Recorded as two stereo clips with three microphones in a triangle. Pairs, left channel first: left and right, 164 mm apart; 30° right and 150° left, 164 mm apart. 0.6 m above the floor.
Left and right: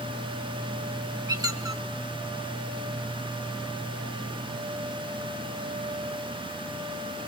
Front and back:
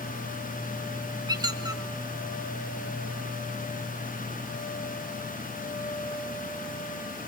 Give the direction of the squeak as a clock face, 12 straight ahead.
5 o'clock.